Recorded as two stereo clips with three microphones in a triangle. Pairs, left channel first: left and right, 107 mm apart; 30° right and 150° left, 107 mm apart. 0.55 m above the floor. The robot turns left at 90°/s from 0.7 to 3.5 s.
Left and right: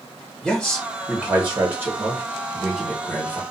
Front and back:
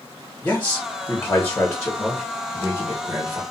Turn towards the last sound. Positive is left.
turn(degrees=120)